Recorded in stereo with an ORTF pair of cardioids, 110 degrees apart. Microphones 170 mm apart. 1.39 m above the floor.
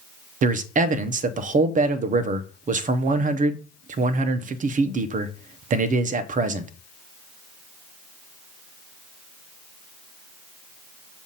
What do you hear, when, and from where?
0.4 s a man speaking: 50° right, 0.8 m